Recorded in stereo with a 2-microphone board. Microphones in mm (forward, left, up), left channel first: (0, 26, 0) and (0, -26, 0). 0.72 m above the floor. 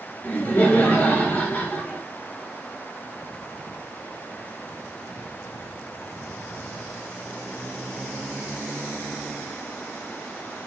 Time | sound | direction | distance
0.2 | laughter | 25° left (ahead or behind) | 4.5 m